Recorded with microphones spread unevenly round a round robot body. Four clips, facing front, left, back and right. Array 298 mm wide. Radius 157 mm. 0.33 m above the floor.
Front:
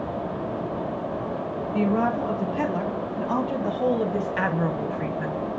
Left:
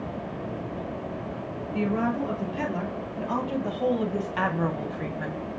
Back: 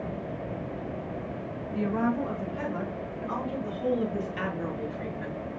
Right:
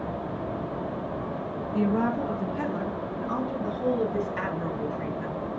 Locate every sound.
1.7 s a woman speaking: 5° right, 4 m; by 5.4 s 50° left, 3 m